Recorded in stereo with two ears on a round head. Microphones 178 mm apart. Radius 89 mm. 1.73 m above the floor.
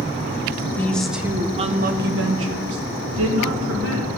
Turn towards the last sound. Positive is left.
turn(degrees=-75)  # may be behind; listen again after turning